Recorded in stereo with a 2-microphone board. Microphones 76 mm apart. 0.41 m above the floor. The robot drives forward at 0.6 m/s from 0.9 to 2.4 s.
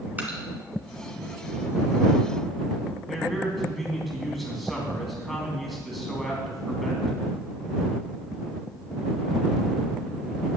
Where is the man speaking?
Centre (ahead or behind), 2.5 m.